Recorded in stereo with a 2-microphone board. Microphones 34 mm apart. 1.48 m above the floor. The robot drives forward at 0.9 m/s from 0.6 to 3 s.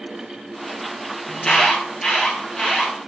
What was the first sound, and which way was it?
An alarm, 20° left (ahead or behind).